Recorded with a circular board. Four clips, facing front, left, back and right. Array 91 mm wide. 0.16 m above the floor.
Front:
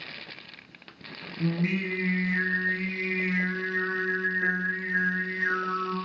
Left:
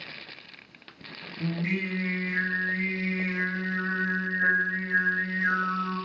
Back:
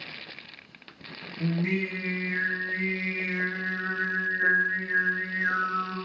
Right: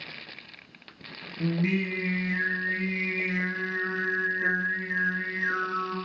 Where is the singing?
45° right, 1.9 m.